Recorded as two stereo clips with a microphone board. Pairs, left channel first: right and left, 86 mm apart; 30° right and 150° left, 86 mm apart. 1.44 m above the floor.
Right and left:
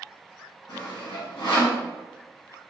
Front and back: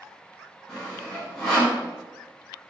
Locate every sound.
0.7 s sawing: 115° right, 1.0 m